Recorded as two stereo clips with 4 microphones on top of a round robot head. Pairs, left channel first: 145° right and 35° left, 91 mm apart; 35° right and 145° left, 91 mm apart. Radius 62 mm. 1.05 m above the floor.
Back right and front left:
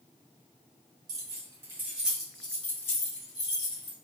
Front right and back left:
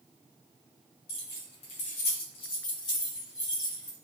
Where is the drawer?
I don't hear a drawer.